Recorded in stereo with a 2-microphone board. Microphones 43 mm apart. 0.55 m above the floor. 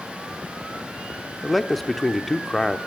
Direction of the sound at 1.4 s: 5° left (ahead or behind).